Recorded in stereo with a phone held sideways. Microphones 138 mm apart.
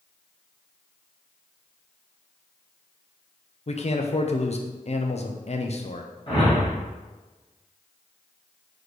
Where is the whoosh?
40° left (ahead or behind), 1.9 m.